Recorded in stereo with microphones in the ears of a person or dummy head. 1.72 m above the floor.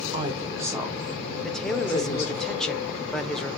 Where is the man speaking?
5° left (ahead or behind), 1.0 m.